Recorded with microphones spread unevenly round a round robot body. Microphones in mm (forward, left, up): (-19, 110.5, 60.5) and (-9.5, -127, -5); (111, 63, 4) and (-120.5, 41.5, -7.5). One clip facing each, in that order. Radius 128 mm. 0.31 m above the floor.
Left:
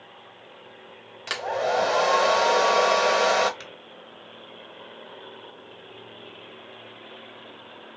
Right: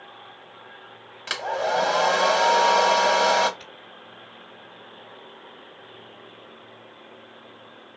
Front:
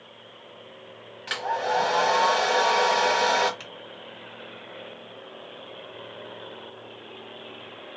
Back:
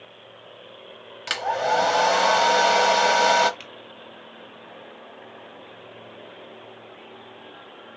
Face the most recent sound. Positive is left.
turn(degrees=110)